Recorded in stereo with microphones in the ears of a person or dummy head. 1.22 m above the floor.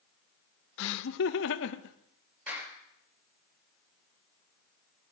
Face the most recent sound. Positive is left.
turn(degrees=-10)  # may be behind; listen again after turning